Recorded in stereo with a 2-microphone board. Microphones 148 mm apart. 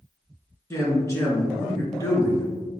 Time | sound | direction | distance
0.7 | a man speaking | 20° left (ahead or behind) | 1.1 m